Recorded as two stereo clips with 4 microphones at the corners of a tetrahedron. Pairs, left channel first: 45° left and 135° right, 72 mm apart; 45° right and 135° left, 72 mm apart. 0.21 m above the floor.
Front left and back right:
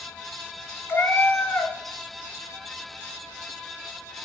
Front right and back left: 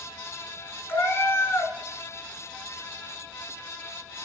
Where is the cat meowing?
5° right, 0.9 m.